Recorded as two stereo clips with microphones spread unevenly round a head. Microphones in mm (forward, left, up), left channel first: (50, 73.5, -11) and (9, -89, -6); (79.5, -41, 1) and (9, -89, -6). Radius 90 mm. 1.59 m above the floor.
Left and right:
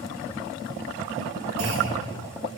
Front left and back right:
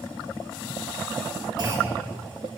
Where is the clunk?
110° right, 3 m.